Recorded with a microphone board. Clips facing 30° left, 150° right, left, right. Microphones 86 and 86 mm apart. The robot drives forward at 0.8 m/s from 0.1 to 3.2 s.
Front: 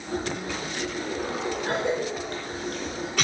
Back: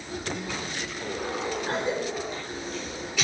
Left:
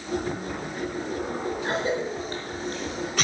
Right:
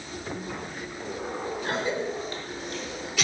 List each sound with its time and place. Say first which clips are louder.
1.6 s a cough: front 3 dB, left 1 dB; 40° left, 3 m; by 3.2 s 70° left, 2 m